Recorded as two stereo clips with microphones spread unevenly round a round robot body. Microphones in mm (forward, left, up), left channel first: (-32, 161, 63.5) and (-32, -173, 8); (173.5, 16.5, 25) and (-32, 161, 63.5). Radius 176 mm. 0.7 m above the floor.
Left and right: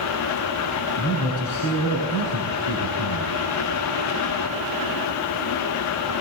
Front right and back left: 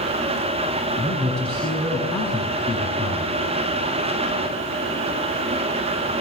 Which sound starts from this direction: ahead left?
A man speaking, at 1.0 s.